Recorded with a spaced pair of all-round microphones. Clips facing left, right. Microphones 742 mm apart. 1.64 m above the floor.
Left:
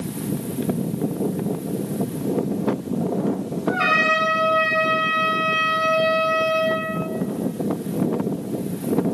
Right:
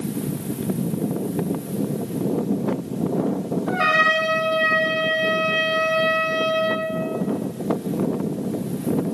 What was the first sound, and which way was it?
A trumpet, 60° left (ahead or behind).